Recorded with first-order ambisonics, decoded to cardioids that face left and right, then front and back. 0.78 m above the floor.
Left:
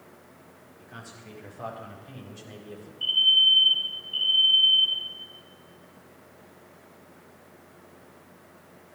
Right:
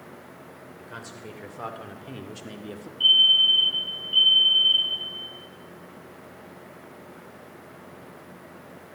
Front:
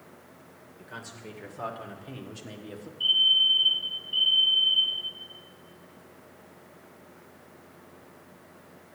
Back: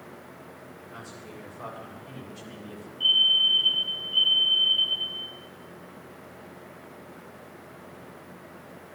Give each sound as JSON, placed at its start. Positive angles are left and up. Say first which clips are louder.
{"t": 0.8, "sound": "a man speaking", "louder": "right 4 dB, front 3 dB", "azimuth_deg": -60, "distance_m": 3.0}
{"t": 3.0, "sound": "a fire alarm", "louder": "right 3 dB, back 1 dB", "azimuth_deg": -85, "distance_m": 8.5}